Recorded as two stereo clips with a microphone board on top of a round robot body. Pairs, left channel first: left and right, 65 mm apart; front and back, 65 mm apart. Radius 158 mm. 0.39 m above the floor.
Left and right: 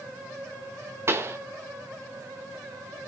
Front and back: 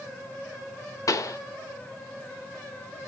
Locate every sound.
1.1 s a pop: 40° right, 0.5 m